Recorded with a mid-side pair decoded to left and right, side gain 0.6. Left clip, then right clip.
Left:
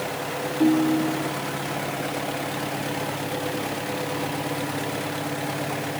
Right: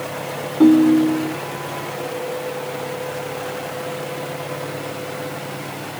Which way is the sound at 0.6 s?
40° right.